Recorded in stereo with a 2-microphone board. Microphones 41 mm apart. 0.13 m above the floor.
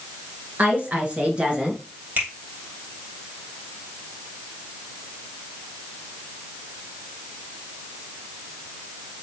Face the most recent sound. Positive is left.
turn(degrees=-50)  # may be behind; listen again after turning